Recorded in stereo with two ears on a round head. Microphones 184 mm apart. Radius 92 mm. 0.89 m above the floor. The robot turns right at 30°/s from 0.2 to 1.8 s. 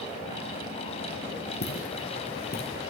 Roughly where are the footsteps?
Left.